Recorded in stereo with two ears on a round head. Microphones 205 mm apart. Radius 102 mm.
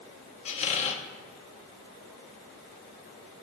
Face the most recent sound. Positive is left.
turn(degrees=30)  # may be behind; listen again after turning